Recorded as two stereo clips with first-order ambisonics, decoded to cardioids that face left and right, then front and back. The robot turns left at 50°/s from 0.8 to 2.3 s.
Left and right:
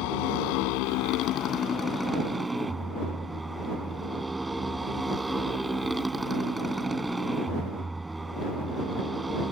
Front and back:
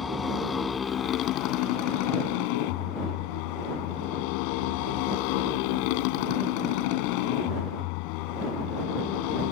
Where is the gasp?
No gasp in this recording.